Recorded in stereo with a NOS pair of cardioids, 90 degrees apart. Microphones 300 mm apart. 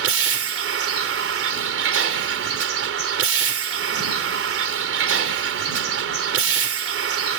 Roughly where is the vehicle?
Ahead right.